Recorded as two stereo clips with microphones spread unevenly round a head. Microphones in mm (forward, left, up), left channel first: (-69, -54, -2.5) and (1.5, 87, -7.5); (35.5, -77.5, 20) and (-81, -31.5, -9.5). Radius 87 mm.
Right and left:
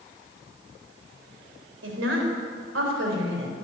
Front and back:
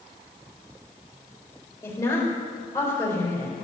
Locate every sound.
1.8 s a woman speaking: 50° left, 4 m